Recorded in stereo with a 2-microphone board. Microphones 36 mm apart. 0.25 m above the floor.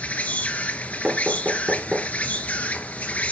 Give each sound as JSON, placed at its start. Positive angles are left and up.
{"t": 0.0, "sound": "an insect", "side_deg": 45, "distance_m": 0.8}
{"t": 1.0, "sound": "knocking", "side_deg": -35, "distance_m": 3.0}